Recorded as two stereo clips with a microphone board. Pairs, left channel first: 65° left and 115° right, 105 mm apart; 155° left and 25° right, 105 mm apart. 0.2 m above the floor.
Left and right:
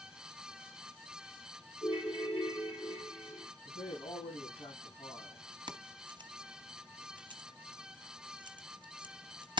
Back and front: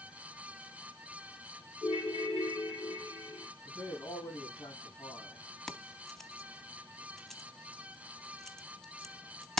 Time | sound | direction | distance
1.8 | a ringtone | 105° left | 4 m
3.6 | a man speaking | 105° left | 8.5 m
5.7 | keys jangling | 120° right | 1.0 m